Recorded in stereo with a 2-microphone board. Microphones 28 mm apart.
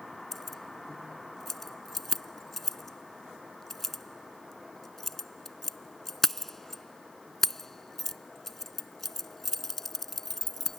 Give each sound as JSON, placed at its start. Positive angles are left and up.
{"t": 0.3, "sound": "keys jangling", "side_deg": 10}